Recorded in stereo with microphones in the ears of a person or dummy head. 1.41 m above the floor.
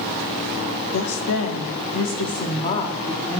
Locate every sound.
0.9 s a woman speaking: 75° left (ahead or behind), 1.3 m; by 3.4 s 20° left (ahead or behind), 1.6 m